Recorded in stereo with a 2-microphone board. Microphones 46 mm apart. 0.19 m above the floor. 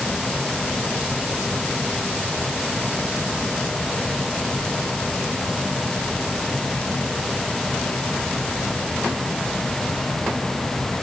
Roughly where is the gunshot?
I don't hear a gunshot.